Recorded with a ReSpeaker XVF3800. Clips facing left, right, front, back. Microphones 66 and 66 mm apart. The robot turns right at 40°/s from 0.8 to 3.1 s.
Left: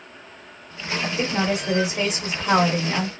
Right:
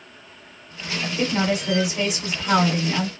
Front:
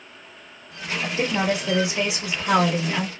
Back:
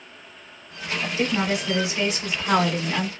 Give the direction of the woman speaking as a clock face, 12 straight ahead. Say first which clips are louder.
Right 2 dB, front 1 dB; 11 o'clock.